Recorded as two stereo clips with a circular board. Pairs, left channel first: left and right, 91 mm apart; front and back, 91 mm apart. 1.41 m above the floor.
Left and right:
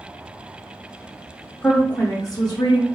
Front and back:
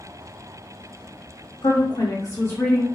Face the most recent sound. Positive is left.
turn(degrees=80)